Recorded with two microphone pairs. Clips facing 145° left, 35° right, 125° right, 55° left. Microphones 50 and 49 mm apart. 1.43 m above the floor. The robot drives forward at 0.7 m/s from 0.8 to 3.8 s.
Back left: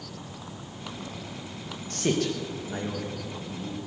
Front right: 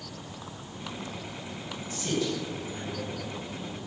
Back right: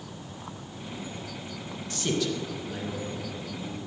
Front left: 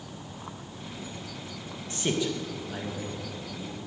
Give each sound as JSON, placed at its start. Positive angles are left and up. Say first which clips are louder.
{"t": 1.9, "sound": "a man speaking", "louder": "back left 3 dB, even", "azimuth_deg": 115, "distance_m": 1.8}